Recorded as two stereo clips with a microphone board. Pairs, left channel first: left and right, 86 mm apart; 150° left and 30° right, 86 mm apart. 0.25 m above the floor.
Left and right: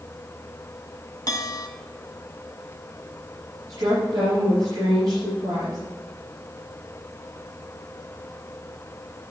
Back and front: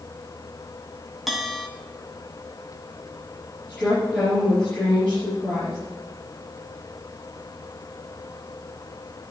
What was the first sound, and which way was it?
A bell, 60° left.